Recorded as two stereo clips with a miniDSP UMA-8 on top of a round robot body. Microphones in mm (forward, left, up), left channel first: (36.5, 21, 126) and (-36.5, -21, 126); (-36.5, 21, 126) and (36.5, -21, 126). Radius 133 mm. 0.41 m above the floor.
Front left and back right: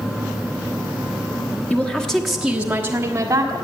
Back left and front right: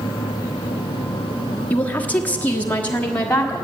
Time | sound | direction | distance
1.7 | a woman speaking | 90° left | 1.6 m